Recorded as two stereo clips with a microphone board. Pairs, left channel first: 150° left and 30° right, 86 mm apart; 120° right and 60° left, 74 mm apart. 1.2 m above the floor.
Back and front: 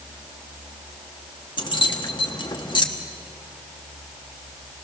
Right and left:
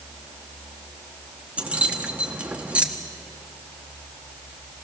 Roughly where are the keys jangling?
Behind left.